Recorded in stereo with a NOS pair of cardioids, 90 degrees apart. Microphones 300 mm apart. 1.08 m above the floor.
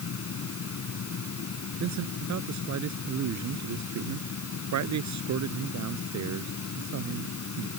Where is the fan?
50° left.